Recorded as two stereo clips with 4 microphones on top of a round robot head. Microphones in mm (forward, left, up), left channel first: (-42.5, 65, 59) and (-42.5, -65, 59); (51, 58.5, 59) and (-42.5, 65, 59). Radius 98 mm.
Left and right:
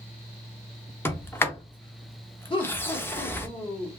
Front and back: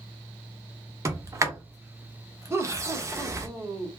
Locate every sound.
1.1 s a sliding door: 150° left, 0.9 m
2.5 s laughter: 120° left, 1.5 m